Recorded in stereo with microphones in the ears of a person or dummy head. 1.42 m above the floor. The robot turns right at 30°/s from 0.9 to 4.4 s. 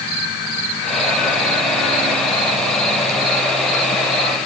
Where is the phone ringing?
No phone ringing in this recording.